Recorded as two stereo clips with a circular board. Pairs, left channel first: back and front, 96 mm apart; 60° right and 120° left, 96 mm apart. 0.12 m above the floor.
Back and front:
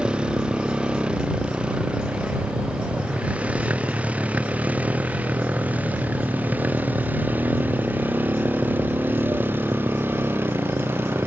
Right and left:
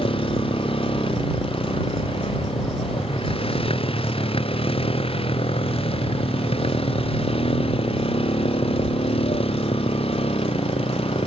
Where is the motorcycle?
80° right; by 11.3 s 65° right.